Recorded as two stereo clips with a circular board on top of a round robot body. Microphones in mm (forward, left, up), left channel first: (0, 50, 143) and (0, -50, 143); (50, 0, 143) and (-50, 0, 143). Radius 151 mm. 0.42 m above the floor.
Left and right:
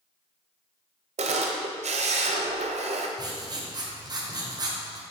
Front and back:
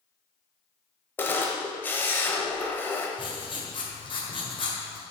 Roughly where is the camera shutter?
Right.